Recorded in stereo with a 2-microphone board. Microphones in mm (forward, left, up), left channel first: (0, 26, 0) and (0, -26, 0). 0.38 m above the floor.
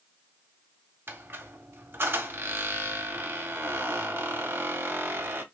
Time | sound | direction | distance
1.1 | a squeak | 45° right (ahead or behind) | 0.5 m